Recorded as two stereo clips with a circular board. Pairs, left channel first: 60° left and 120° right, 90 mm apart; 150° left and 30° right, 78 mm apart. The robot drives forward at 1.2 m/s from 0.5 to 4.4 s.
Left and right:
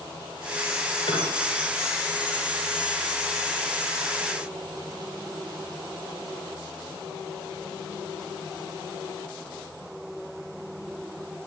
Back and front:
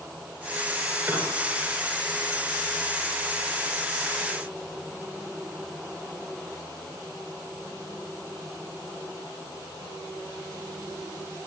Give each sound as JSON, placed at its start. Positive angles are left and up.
{"t": 1.1, "sound": "a piano", "azimuth_deg": 35, "distance_m": 8.5}